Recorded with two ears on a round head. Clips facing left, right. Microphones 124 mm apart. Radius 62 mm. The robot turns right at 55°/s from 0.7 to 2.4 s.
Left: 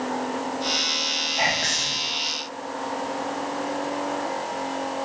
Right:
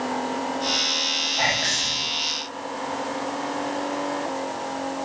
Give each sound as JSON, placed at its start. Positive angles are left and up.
{"t": 1.4, "sound": "whispering", "azimuth_deg": 10, "distance_m": 1.1}